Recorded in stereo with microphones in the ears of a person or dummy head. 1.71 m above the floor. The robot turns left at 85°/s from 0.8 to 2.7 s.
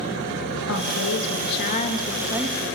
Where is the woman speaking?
115° left, 3 m; by 2.7 s 40° right, 3 m.